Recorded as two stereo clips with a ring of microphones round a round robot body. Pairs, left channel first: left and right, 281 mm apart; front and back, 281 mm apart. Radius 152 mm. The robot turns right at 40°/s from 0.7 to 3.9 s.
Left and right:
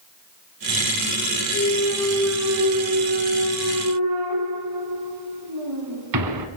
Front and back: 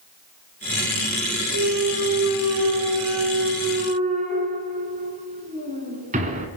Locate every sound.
1.5 s a clunk: 150° left, 1.8 m; by 6.5 s 115° right, 1.8 m